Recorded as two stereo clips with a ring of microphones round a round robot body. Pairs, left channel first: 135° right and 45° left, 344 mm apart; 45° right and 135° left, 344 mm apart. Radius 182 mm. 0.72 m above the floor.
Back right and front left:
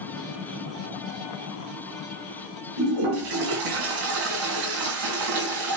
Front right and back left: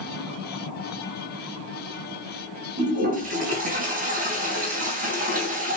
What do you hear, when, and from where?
2.8 s a toilet flushing: 70° left, 5 m